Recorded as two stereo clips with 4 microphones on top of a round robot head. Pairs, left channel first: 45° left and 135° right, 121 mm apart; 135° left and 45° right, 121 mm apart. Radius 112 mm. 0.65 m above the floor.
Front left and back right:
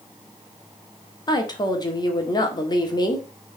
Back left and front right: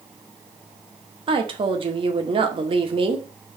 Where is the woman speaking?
10° right, 1.9 m.